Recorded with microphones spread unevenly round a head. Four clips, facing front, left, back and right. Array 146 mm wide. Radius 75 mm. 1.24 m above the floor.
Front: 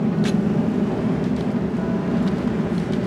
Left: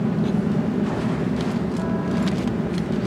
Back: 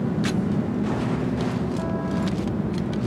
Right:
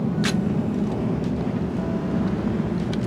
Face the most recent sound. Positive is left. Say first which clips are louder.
# left 1 dB, front 4 dB
turn(degrees=15)